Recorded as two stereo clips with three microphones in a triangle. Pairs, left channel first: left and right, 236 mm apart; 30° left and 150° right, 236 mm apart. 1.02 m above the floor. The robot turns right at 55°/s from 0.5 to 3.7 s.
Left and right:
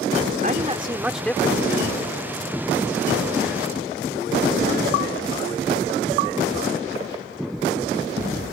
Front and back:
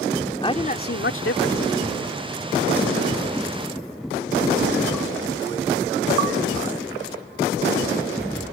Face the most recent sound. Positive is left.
turn(degrees=140)